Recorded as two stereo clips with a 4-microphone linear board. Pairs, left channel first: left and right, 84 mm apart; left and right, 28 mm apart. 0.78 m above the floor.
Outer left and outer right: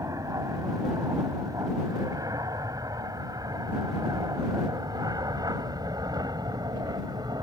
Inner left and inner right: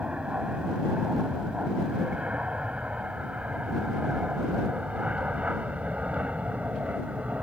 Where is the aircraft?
40° right (ahead or behind); by 7.4 s 50° right (ahead or behind).